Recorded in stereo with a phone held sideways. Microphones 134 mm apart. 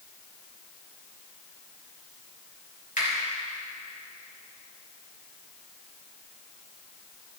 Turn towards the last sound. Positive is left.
turn(degrees=80)